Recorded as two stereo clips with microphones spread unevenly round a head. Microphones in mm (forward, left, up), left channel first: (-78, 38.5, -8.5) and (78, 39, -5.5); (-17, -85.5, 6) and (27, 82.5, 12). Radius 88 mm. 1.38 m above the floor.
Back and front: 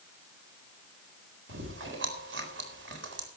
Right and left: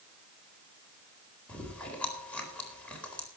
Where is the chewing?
20° right, 4 m.